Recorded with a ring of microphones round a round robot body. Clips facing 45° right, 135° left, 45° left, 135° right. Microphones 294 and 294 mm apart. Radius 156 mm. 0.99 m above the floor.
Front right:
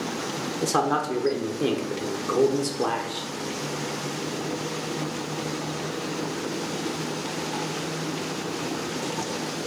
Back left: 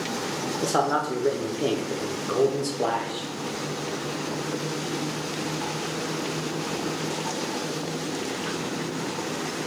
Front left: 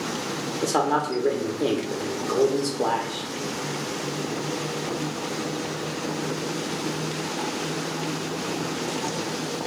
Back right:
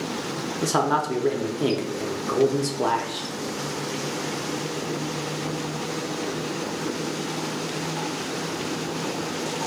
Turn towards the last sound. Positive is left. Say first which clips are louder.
# front right 1 dB, even
turn(degrees=-100)